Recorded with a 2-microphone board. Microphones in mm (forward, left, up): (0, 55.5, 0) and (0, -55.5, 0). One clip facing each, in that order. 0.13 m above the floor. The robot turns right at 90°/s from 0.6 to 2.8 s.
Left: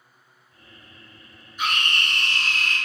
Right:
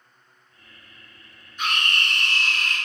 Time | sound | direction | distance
1.6 | a scream | 10° left | 1.7 m